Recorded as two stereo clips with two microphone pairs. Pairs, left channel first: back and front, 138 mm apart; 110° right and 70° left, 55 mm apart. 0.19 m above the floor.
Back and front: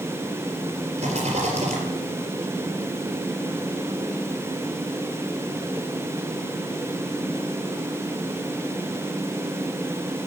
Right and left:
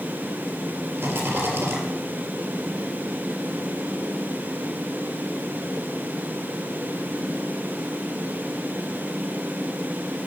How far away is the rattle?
About 4 m.